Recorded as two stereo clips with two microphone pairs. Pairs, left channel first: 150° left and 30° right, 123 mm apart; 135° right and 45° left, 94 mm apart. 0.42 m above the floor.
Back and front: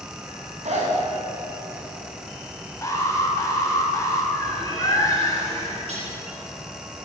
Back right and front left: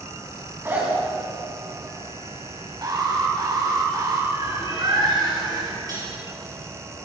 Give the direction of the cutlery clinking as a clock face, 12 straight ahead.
12 o'clock.